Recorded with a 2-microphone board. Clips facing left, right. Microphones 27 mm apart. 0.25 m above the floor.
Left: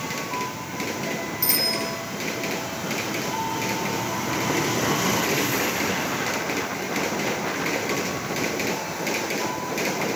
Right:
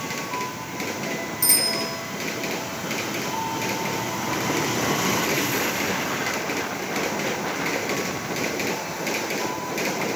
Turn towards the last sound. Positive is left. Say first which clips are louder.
# right 1 dB
turn(degrees=30)  # may be behind; listen again after turning